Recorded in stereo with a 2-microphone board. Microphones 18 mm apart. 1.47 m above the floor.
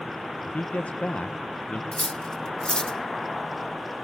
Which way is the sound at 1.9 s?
35° left (ahead or behind).